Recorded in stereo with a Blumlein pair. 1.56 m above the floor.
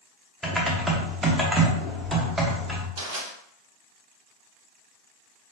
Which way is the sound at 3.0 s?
55° right.